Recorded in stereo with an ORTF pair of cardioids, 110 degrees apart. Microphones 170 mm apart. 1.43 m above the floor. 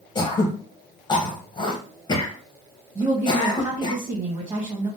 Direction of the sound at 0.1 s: 25° left.